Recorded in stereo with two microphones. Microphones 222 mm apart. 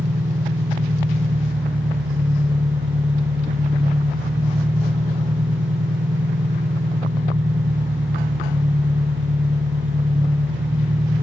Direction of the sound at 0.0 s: 55° right (ahead or behind).